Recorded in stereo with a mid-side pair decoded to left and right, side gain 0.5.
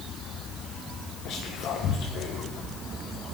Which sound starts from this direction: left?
Whispering, at 1.2 s.